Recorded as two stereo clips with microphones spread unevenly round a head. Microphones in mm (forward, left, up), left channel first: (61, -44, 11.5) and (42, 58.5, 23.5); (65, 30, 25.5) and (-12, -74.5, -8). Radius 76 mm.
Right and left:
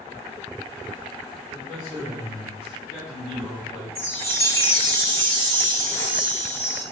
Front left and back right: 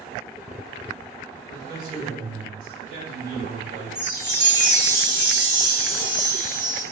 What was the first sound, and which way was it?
A man speaking, 135° right.